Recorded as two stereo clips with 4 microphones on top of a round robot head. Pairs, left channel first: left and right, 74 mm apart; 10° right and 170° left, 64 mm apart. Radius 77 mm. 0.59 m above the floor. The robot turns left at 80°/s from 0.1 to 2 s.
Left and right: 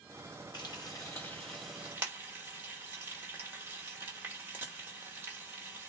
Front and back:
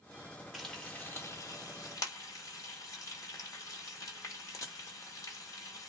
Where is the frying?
85° left, 1.3 m; by 5.9 s 30° right, 1.3 m.